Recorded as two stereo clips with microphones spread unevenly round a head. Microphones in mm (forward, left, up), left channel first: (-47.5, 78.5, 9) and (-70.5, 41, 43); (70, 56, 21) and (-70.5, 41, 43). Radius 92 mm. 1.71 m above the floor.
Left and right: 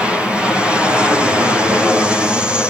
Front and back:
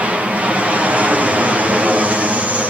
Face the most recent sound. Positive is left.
turn(degrees=100)